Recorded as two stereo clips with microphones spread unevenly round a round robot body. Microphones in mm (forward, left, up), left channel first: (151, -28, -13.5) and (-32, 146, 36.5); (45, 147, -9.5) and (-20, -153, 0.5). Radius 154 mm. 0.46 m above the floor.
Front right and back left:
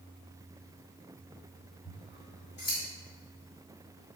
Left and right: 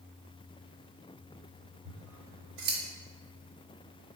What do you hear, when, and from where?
1.9 s scissors: 95° right, 0.9 m